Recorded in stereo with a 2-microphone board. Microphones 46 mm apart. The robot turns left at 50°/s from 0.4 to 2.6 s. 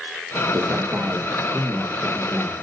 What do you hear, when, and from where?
0.5 s a man speaking: 120° right, 1.7 m; by 2.5 s 140° left, 1.7 m